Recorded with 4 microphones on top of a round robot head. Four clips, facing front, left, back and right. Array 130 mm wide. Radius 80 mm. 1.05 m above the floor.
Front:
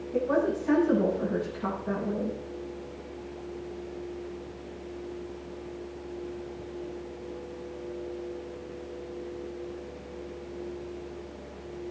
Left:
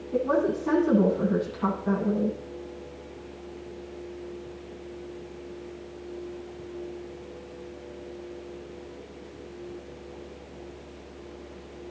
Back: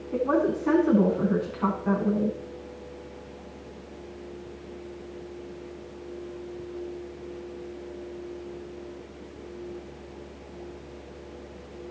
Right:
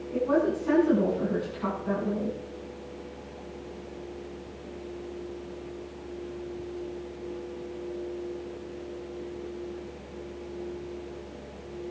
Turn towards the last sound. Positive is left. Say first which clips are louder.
# left 1 dB, back 2 dB
turn(degrees=165)